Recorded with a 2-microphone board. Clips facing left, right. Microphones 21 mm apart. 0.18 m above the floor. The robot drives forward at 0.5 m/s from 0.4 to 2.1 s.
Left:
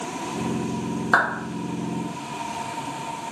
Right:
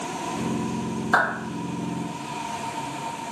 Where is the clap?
15° left (ahead or behind), 1.5 m.